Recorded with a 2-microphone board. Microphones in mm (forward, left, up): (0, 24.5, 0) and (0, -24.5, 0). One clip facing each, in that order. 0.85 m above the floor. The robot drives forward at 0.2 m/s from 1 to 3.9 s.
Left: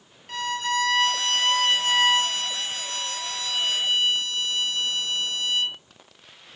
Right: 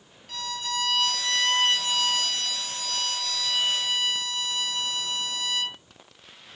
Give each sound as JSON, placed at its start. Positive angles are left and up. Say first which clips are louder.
{"t": 0.3, "sound": "a violin", "louder": "left 6 dB", "side_deg": 40, "distance_m": 0.9}